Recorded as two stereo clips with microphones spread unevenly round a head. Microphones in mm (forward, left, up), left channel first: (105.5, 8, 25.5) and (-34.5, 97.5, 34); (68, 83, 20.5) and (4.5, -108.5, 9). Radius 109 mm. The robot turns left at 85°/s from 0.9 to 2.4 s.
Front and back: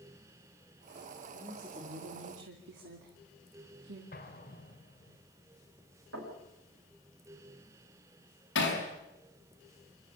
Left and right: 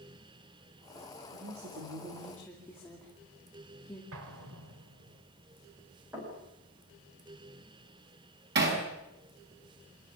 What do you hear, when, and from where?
1.3 s a woman speaking: 115° right, 2.5 m; by 4.0 s 155° left, 2.5 m
4.1 s an explosion: 90° right, 2.5 m
6.1 s knocking: 170° left, 6.5 m
8.6 s hammering: 70° right, 5.5 m